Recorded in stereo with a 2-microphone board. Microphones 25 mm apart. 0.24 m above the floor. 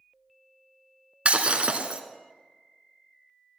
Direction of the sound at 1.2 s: 60° right (ahead or behind).